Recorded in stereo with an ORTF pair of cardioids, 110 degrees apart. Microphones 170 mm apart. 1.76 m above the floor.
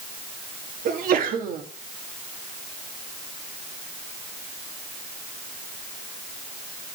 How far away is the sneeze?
About 3 m.